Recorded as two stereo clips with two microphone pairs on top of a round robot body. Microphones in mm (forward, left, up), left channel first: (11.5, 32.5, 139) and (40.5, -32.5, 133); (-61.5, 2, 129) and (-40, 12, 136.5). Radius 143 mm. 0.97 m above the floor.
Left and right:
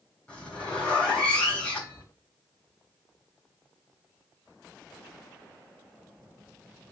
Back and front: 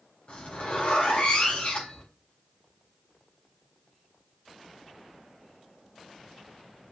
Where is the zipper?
170° right, 4 m.